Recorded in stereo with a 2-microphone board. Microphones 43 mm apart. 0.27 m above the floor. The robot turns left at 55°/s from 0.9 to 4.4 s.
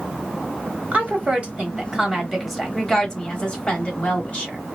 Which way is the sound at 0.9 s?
95° right.